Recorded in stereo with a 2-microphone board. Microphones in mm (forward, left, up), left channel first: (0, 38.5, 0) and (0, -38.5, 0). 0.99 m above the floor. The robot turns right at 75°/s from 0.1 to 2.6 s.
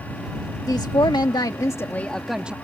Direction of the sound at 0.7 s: 55° left.